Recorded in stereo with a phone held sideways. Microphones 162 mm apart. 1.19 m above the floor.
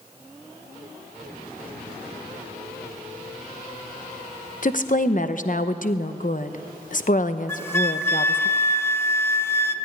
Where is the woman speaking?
55° left (ahead or behind), 0.8 m.